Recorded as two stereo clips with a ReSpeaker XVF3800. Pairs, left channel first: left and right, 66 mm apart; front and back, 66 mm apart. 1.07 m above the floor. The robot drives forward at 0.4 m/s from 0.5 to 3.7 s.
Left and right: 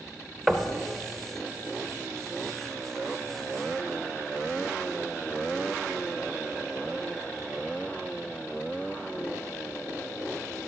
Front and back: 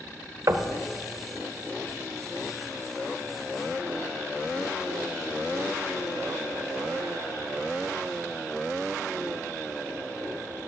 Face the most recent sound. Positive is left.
turn(degrees=180)